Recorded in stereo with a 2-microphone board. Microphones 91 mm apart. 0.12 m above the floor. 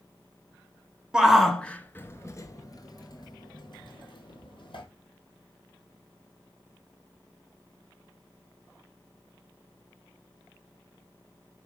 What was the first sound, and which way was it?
A shout, 10° right (ahead or behind).